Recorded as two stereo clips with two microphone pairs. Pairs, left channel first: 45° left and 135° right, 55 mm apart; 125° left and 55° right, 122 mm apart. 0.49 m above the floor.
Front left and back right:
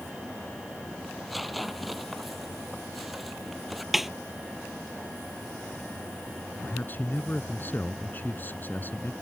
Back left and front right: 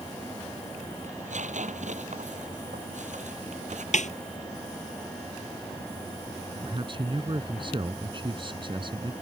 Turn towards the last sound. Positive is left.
turn(degrees=-10)